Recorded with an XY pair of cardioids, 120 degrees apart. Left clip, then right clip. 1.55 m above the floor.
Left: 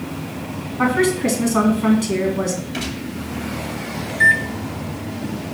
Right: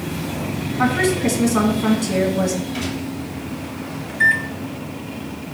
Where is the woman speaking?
15° left, 2 m.